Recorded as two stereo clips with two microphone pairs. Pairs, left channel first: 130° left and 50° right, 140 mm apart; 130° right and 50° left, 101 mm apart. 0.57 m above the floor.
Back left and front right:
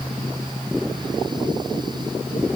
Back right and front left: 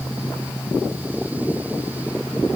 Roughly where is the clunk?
I don't hear a clunk.